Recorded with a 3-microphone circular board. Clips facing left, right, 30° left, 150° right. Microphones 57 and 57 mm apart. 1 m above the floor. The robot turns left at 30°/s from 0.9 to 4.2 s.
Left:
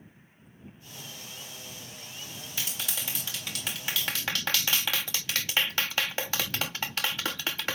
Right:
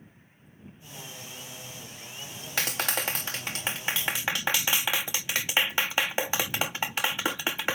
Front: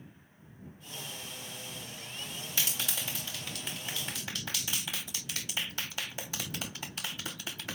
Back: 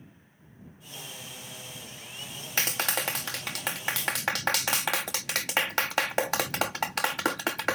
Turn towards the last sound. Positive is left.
turn(degrees=-160)